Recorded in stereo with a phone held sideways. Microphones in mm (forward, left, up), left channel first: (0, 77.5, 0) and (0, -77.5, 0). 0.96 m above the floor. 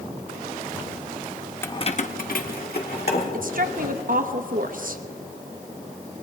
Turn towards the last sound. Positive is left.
turn(degrees=-60)  # may be behind; listen again after turning